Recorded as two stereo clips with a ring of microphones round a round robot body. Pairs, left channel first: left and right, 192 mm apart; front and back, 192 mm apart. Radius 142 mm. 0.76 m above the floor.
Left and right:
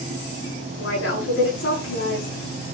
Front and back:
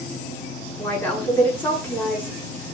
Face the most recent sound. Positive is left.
turn(degrees=80)